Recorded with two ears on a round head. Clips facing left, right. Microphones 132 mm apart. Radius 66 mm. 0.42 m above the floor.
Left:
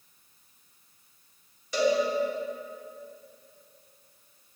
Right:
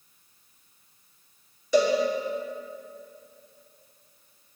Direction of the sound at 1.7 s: 80° right.